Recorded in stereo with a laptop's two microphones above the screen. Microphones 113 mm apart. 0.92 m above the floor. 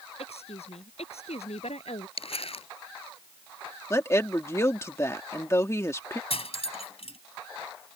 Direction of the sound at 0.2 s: 75° left (ahead or behind).